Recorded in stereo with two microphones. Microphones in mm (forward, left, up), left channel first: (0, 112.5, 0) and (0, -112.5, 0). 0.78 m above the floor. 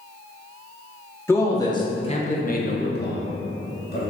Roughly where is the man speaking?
Centre.